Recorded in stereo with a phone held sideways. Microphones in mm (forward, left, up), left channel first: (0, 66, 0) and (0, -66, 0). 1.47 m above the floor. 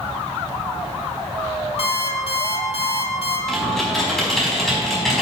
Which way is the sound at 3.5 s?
Centre (ahead or behind).